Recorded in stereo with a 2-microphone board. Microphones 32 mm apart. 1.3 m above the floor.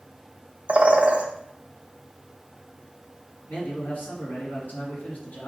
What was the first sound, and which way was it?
A bird, 40° right (ahead or behind).